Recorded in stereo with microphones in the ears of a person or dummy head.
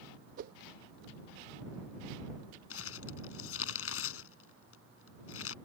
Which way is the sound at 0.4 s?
60° right (ahead or behind).